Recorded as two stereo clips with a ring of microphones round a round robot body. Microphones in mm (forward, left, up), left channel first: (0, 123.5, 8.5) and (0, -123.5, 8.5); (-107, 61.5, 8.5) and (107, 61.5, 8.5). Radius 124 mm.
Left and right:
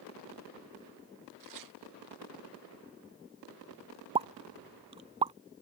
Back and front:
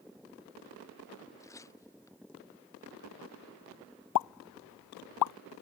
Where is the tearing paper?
100° right.